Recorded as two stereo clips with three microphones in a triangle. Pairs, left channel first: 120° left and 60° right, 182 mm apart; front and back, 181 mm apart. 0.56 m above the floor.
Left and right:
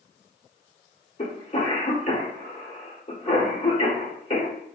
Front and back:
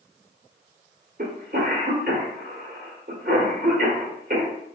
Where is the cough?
165° left, 1.3 m.